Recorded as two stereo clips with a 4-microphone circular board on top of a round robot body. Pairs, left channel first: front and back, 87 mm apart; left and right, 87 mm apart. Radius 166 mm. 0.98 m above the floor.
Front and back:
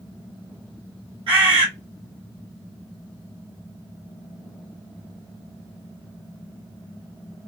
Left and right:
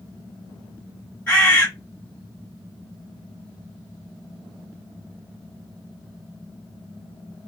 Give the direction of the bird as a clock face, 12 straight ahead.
7 o'clock.